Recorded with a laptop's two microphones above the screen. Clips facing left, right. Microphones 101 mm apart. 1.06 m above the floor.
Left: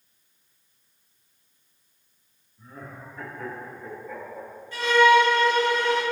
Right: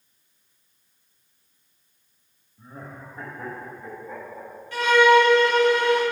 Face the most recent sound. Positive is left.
turn(degrees=-70)  # may be behind; listen again after turning